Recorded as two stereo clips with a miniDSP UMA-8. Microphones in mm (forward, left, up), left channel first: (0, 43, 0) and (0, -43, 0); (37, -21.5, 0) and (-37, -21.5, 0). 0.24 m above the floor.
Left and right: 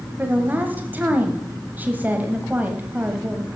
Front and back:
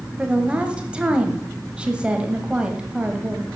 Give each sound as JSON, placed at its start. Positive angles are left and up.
{"t": 0.2, "sound": "a woman speaking", "azimuth_deg": -125, "distance_m": 1.2}